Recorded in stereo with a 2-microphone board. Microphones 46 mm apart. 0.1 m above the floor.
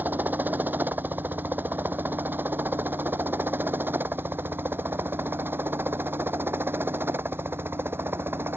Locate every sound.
0.0 s a helicopter: 40° right (ahead or behind); by 8.6 s 55° right (ahead or behind)